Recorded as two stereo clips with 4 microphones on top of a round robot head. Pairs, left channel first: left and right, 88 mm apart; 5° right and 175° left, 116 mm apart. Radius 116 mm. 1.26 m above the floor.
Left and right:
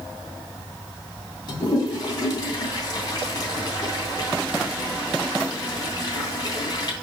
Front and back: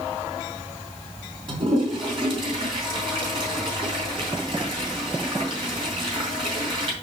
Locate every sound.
1.5 s a toilet flushing: 130° left, 2.5 m